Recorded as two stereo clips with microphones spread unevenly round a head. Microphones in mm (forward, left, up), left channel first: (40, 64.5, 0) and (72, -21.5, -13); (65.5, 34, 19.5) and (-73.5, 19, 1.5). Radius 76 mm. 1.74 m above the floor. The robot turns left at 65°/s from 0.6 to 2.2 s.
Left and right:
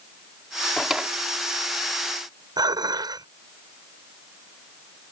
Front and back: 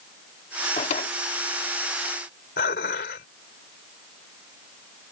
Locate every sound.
0.8 s a drawer: 30° left; by 1.1 s 5° left
2.6 s dishes clattering: 25° right